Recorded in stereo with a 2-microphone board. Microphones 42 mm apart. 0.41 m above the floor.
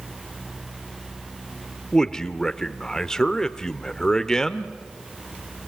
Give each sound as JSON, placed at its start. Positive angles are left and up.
{"t": 1.9, "sound": "a man speaking", "side_deg": 10, "distance_m": 0.8}